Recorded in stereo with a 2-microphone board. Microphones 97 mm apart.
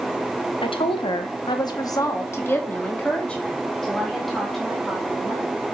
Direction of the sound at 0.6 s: 65° left (ahead or behind).